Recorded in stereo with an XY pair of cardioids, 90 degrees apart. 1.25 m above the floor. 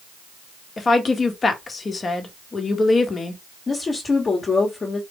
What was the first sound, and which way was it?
A woman speaking, 35° left.